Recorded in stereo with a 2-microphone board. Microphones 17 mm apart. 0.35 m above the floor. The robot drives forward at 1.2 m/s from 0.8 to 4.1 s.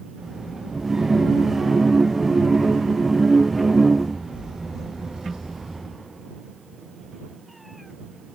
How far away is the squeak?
No squeak in this recording.